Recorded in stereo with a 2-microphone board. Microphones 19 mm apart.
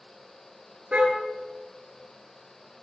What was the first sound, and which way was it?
A car horn, 80° right.